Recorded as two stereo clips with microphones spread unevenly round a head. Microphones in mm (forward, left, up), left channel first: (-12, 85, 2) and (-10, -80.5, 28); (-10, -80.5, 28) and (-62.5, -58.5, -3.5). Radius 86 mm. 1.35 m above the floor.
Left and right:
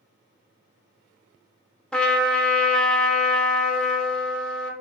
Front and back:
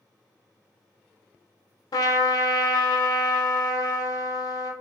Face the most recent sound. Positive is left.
turn(degrees=20)